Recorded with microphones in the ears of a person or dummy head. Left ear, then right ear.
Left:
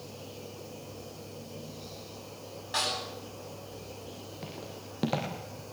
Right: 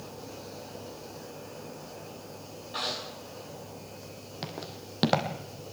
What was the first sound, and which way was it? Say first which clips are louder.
A snare drum: left 2 dB; 60° left (ahead or behind).